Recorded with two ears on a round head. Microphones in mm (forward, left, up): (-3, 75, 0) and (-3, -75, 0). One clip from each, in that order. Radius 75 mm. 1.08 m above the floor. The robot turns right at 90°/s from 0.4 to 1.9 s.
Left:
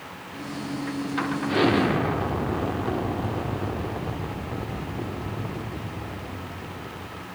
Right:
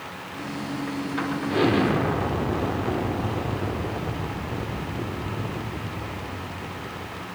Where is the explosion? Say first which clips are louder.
Even; 130° left, 0.8 m; by 7.3 s 170° left, 0.8 m.